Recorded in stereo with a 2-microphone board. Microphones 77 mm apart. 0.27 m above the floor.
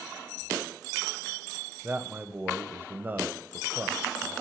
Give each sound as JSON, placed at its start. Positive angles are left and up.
{"t": 1.8, "sound": "a man speaking", "side_deg": -25, "distance_m": 1.0}